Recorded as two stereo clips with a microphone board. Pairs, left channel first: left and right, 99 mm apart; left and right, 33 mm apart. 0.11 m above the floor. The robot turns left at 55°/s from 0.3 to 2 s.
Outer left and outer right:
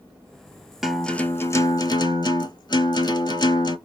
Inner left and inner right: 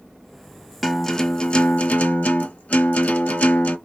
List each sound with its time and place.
0.8 s a guitar: 175° right, 0.5 m; by 3.8 s 120° left, 0.5 m